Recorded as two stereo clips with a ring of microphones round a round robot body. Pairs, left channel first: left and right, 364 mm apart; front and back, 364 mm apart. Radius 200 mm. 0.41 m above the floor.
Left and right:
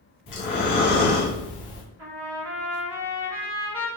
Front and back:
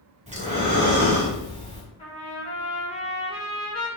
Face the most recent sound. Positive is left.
turn(degrees=-65)